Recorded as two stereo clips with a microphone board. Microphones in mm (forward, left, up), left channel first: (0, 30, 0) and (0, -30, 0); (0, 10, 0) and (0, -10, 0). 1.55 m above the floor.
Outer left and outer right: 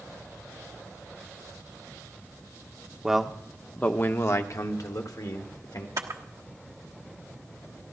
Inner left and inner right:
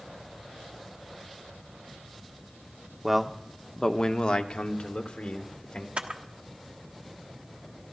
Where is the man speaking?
10° right (ahead or behind), 1.0 m; by 5.9 s 85° left, 1.7 m.